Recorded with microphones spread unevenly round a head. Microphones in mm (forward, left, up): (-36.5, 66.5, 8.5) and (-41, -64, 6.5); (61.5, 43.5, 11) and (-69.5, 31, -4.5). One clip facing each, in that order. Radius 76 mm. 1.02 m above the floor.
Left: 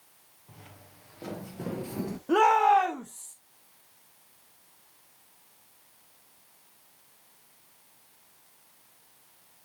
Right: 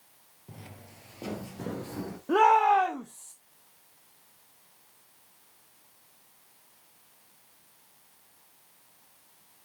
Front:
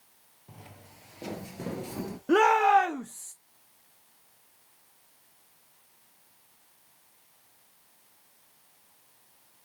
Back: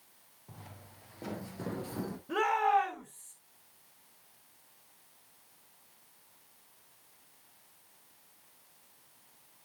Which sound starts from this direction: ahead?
A shout, at 2.3 s.